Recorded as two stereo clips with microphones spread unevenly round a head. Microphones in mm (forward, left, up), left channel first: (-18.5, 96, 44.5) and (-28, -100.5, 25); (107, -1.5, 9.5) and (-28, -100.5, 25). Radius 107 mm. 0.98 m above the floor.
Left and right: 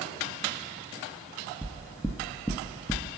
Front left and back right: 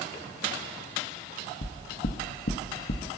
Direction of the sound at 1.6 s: 10° left.